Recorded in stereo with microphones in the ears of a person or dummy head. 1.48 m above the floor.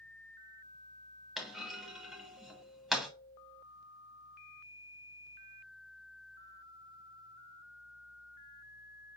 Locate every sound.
1.4 s a clunk: centre (ahead or behind), 0.7 m